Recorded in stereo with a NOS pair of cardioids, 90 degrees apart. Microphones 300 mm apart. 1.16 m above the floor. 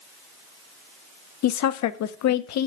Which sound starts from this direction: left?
A woman speaking, at 1.4 s.